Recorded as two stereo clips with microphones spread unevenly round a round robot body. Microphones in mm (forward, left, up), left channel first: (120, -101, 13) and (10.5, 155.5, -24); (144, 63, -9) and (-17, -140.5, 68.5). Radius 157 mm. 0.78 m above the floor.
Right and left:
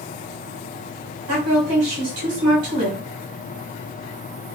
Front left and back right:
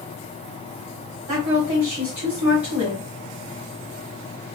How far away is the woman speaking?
About 1.9 m.